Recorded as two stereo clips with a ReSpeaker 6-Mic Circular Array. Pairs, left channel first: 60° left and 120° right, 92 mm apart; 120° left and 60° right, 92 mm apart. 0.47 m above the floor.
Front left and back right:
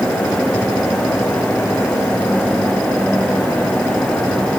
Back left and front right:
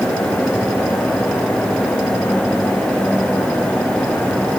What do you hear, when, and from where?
Only background noise.